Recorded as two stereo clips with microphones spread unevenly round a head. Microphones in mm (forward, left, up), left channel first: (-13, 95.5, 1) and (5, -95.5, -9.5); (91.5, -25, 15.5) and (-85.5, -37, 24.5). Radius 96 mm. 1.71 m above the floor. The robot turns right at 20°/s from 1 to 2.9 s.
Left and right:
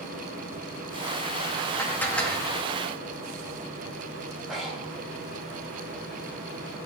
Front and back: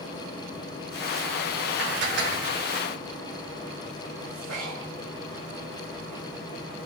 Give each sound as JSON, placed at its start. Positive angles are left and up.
{"t": 1.8, "sound": "dishes clattering", "azimuth_deg": 170, "distance_m": 1.7}
{"t": 4.5, "sound": "breathing", "azimuth_deg": -175, "distance_m": 3.5}